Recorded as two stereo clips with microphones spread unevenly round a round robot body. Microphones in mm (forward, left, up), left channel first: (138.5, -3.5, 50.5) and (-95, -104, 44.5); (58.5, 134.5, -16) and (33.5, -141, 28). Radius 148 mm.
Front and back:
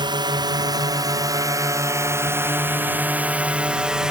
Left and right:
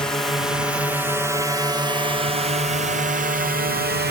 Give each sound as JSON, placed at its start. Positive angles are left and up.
{"t": 0.0, "sound": "a drone", "azimuth_deg": 155}